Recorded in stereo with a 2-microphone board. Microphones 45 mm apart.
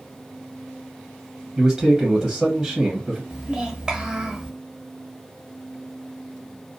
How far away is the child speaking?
About 0.7 m.